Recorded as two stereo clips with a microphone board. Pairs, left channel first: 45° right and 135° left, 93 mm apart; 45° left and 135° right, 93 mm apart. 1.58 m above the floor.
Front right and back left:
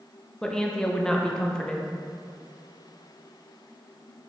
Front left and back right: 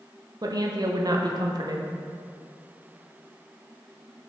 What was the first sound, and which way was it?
A woman speaking, 125° right.